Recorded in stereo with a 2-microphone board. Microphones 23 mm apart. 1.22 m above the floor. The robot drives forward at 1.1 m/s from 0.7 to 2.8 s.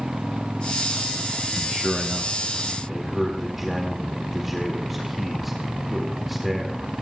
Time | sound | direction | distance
1.6 | a man speaking | 25° right (ahead or behind) | 0.6 m